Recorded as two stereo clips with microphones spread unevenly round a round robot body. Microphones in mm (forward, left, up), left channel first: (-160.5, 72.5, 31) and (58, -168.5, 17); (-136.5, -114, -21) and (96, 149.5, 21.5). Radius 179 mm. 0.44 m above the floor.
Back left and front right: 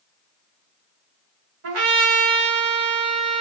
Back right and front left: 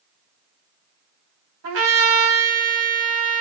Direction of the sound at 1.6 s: 10° right.